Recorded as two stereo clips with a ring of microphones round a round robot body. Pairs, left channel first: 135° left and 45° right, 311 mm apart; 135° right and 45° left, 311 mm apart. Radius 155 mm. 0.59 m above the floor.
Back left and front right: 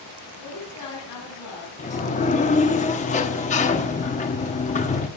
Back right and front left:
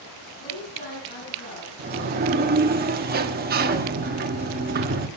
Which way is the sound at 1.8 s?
85° left.